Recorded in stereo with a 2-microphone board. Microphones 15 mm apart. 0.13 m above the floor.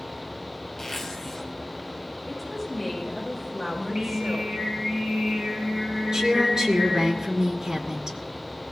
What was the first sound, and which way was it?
A zipper, 20° left (ahead or behind).